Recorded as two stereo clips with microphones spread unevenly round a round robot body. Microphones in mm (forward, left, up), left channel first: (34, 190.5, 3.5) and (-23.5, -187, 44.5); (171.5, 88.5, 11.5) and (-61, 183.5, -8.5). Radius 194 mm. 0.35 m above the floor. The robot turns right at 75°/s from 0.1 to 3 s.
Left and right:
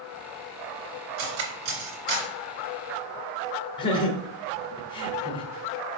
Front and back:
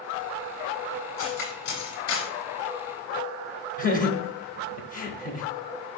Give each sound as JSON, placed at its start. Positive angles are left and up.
{"t": 1.2, "sound": "cutlery clinking", "azimuth_deg": -105, "distance_m": 3.0}
{"t": 3.8, "sound": "laughter", "azimuth_deg": 20, "distance_m": 1.1}